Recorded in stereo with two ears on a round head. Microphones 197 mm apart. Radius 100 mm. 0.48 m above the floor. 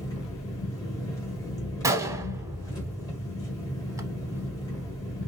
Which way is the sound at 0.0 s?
15° left (ahead or behind).